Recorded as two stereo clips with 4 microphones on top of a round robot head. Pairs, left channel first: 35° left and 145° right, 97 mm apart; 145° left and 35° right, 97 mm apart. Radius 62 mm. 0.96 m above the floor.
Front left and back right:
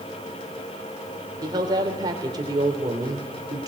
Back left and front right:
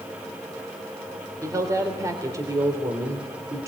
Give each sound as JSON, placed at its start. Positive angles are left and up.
{"t": 1.4, "sound": "a woman speaking", "azimuth_deg": -95, "distance_m": 3.0}